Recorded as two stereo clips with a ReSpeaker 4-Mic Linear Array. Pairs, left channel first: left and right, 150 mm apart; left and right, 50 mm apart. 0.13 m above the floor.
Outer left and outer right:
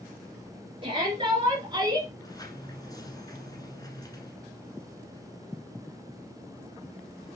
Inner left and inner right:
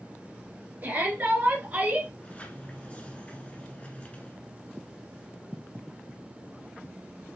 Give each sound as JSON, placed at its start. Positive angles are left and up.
{"t": 0.8, "sound": "a shout", "side_deg": -35, "distance_m": 2.0}
{"t": 2.2, "sound": "a sliding door", "side_deg": 25, "distance_m": 1.3}